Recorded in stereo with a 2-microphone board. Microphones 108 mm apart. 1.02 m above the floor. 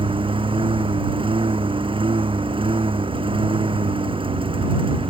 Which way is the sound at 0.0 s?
55° right (ahead or behind).